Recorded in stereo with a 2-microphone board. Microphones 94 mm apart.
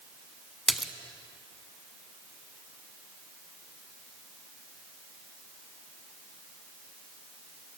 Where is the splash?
Centre (ahead or behind), 0.5 m.